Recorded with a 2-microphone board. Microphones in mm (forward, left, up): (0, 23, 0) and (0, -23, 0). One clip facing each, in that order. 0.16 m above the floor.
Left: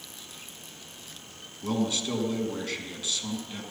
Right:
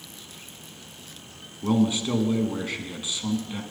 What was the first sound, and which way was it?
A man speaking, 20° right (ahead or behind).